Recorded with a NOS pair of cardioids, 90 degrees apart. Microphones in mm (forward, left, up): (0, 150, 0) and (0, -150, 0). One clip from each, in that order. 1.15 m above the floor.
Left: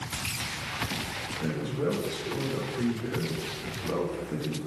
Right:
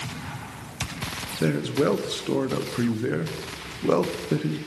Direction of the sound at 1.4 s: 60° right.